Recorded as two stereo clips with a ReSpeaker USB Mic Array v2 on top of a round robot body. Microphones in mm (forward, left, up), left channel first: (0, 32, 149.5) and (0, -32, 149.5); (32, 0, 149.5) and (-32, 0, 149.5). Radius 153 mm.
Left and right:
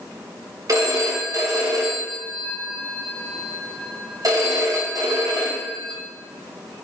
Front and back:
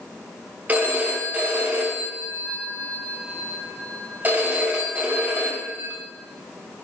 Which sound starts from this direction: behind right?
A phone ringing, at 0.7 s.